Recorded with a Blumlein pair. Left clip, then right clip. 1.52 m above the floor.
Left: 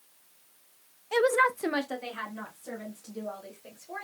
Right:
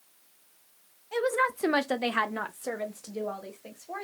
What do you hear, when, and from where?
1.1 s a woman speaking: 25° left, 0.6 m; by 4.0 s 75° right, 1.6 m